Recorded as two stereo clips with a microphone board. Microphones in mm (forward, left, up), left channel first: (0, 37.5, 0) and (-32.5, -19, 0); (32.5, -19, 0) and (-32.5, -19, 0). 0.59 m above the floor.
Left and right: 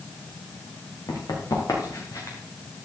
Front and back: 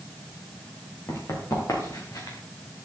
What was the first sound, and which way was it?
Running footsteps, 40° left.